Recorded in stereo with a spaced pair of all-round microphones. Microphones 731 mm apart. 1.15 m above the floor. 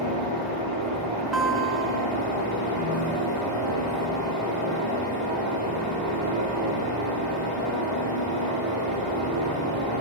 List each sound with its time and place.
0.0 s a fan: 25° right (ahead or behind), 6.5 m
1.3 s a guitar: 70° right (ahead or behind), 1.6 m